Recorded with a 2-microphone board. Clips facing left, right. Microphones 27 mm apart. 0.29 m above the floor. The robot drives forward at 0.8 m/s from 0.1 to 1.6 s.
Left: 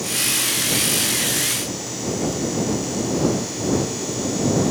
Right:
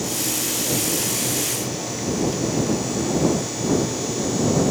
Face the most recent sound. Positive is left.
No sound to turn to.